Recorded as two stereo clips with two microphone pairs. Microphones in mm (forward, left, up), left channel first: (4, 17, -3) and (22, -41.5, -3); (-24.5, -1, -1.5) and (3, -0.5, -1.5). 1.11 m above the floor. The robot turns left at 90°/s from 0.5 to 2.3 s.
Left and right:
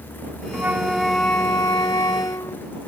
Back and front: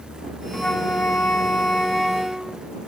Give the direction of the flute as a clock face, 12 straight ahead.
4 o'clock.